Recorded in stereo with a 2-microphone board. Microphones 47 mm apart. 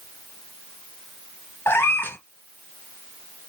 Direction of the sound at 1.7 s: 60° left (ahead or behind).